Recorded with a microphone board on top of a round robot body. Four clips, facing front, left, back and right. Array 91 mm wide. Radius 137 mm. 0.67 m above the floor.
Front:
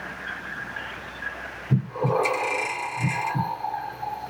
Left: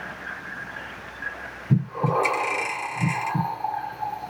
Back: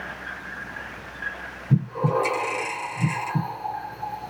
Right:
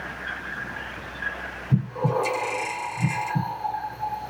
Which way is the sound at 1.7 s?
90° left.